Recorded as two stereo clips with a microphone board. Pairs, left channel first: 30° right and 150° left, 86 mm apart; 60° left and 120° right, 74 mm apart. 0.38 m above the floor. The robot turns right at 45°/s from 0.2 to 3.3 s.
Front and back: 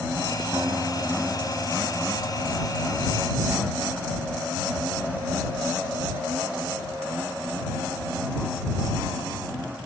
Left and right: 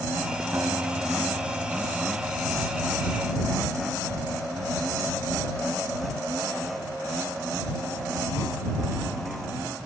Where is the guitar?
170° right; by 2.6 s 80° right.